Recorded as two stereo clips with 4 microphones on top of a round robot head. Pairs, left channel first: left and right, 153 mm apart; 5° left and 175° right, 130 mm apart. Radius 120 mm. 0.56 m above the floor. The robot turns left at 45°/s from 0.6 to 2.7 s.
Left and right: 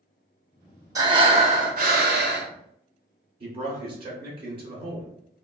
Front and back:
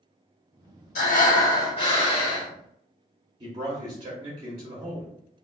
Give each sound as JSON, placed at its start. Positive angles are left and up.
{"t": 0.9, "sound": "breathing", "azimuth_deg": -20, "distance_m": 0.7}
{"t": 3.4, "sound": "a man speaking", "azimuth_deg": -135, "distance_m": 0.8}